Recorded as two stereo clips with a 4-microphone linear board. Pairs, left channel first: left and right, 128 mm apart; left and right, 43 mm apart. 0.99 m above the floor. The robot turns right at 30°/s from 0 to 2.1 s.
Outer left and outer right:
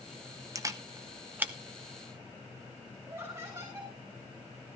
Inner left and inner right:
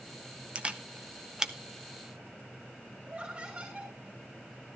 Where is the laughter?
25° right (ahead or behind), 2.5 m.